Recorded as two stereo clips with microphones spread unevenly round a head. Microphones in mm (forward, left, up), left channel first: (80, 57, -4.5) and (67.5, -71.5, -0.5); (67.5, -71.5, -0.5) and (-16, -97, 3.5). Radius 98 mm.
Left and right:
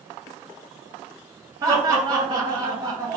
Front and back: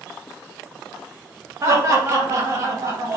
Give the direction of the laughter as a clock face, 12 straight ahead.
5 o'clock.